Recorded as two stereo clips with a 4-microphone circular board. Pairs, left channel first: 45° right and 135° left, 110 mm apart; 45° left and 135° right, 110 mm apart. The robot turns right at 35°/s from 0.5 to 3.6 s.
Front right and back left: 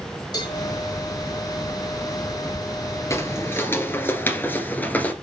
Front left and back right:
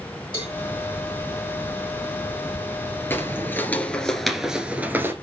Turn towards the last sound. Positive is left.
turn(degrees=-100)